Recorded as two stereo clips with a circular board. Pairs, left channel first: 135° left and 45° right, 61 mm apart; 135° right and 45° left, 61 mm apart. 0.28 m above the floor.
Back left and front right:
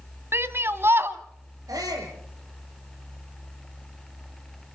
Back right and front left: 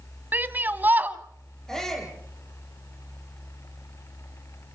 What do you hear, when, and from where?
0.3 s a shout: 5° right, 1.6 m
1.7 s a shout: 55° right, 8 m